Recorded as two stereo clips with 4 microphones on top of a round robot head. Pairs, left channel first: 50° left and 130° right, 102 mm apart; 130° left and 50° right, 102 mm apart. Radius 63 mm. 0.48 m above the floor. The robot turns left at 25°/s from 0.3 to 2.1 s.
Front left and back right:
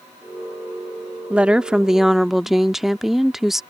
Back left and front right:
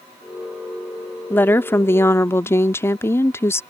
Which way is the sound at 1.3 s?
170° left.